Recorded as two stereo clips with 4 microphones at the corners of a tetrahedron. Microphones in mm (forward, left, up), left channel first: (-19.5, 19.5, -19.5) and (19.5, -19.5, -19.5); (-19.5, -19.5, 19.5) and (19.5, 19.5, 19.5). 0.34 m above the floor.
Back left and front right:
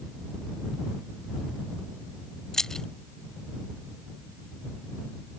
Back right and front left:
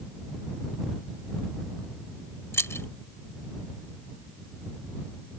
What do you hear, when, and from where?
2.5 s keys jangling: 145° right